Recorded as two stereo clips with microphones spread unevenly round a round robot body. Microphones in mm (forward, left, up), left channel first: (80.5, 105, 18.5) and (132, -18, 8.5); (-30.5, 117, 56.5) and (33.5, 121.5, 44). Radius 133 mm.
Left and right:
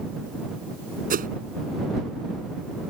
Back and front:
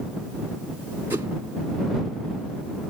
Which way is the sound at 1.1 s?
65° right.